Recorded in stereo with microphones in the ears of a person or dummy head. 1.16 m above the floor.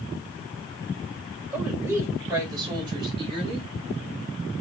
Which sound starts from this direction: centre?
A woman speaking, at 1.5 s.